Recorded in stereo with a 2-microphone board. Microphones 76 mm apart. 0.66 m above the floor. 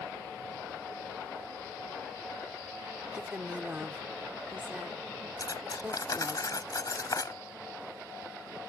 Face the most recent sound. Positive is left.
turn(degrees=55)  # may be behind; listen again after turning